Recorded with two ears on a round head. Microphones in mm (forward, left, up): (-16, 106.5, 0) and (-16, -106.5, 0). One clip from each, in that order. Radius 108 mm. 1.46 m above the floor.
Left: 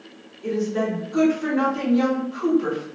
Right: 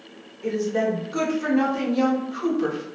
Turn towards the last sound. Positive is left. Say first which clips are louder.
# right 1 dB
turn(degrees=-40)  # may be behind; listen again after turning